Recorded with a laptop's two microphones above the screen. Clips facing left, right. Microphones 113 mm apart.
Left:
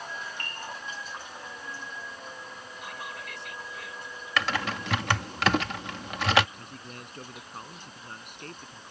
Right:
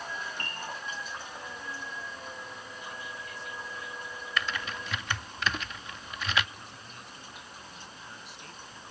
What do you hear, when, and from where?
0.4 s a piano: 30° right (ahead or behind)
2.8 s whispering: 85° left
4.4 s typing on a keyboard: 75° left (ahead or behind)
6.6 s a man speaking: 55° left (ahead or behind)